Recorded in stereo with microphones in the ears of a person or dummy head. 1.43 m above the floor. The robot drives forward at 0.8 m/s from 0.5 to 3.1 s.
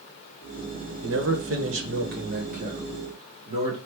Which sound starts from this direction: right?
A man speaking, at 1.0 s.